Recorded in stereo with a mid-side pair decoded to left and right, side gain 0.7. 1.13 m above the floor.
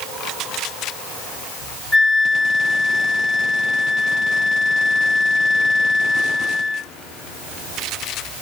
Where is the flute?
30° left, 4 m.